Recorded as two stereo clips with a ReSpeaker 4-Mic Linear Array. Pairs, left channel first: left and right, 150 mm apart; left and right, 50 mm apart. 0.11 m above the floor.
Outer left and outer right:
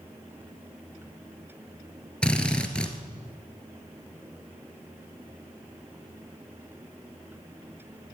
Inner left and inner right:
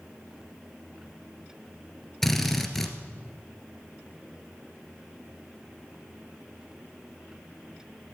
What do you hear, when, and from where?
2.2 s a drill: 5° left (ahead or behind), 1.4 m